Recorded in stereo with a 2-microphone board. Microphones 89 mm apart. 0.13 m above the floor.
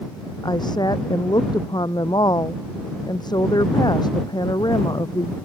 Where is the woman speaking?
50° left (ahead or behind).